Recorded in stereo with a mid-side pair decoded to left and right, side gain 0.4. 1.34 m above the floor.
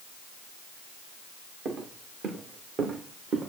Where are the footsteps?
65° right, 6.5 m; by 3.5 s 55° right, 8 m.